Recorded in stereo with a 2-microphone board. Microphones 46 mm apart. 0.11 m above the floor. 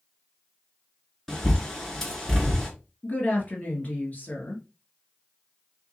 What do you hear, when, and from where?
1.3 s a bird: 10° left (ahead or behind), 1.5 m
3.0 s a woman speaking: 40° left (ahead or behind), 1.9 m